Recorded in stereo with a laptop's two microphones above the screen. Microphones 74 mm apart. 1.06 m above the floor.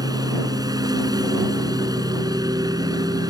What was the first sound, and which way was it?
A lawn mower, 65° right (ahead or behind).